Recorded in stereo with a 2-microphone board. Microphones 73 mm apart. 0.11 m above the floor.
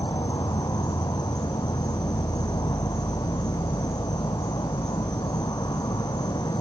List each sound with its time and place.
0.0 s an insect: 65° left (ahead or behind), 0.9 m